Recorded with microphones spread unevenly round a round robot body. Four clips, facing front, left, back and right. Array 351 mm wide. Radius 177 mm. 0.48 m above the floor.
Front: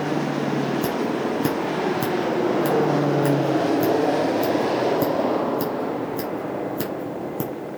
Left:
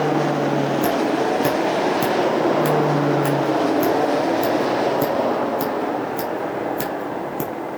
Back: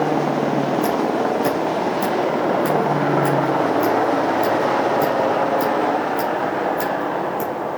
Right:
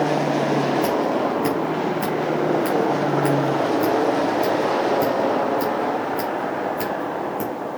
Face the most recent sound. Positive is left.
turn(degrees=15)